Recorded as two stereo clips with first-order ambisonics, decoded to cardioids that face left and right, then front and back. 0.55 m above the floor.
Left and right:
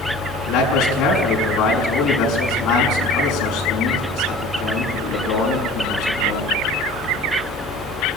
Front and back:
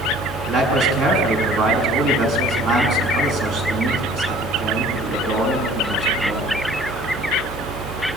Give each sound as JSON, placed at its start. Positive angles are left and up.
{"t": 0.5, "sound": "a man speaking", "azimuth_deg": 135, "distance_m": 6.0}